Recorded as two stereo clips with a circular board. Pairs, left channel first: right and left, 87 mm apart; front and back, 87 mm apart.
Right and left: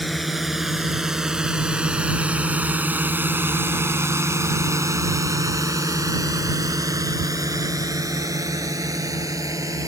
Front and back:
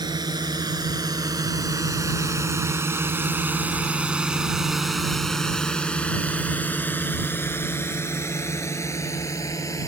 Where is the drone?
Straight behind; by 9.9 s 45° left.